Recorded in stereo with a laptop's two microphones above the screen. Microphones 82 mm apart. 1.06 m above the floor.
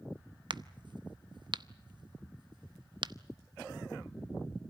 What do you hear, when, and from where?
0.5 s a crack: 65° right (ahead or behind), 0.7 m